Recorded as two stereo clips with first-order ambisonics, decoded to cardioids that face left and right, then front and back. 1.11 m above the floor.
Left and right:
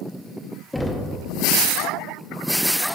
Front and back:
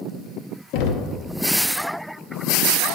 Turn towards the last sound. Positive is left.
turn(degrees=5)